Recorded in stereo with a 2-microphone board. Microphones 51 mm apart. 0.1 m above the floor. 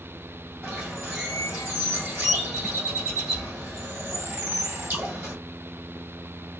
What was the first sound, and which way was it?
A bird, 25° right (ahead or behind).